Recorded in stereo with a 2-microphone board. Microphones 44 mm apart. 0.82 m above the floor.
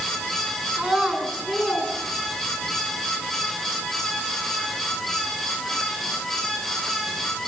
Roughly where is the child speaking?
Centre.